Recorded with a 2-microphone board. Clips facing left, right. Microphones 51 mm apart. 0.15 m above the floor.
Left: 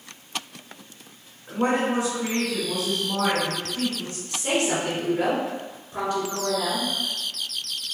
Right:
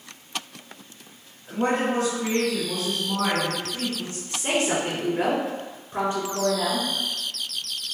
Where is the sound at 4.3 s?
30° right (ahead or behind), 1.6 m.